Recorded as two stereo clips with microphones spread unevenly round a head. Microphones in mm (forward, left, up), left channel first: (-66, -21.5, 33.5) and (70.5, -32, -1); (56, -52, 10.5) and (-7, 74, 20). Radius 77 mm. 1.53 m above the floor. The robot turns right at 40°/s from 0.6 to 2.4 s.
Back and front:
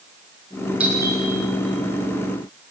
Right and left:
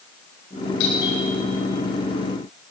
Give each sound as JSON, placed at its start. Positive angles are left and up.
{"t": 0.8, "sound": "a doorbell", "azimuth_deg": -85, "distance_m": 9.5}